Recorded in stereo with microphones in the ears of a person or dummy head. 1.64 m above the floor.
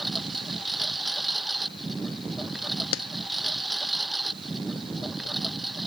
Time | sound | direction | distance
0.0 | a lawn mower | centre (ahead or behind) | ?
2.9 | a clap | 80° left | ?